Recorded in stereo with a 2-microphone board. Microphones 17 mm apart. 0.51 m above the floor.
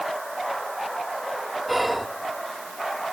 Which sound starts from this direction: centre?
Whispering, at 1.7 s.